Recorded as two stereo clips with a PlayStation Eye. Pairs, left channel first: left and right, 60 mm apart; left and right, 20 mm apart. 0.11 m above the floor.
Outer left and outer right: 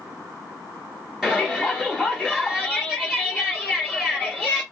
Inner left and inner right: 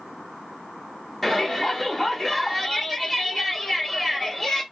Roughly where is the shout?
Centre.